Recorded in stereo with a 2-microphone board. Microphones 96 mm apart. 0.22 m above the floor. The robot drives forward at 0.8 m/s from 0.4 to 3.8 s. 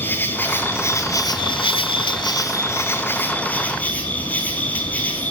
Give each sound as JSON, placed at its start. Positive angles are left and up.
{"t": 0.0, "sound": "an insect", "side_deg": 20, "distance_m": 1.2}